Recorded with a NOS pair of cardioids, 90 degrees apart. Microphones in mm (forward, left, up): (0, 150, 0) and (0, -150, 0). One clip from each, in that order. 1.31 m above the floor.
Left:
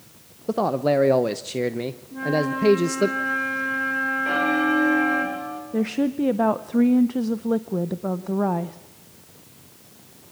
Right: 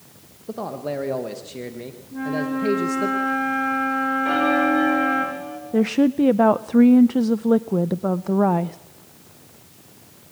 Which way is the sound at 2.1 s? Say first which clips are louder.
Left 2 dB; straight ahead.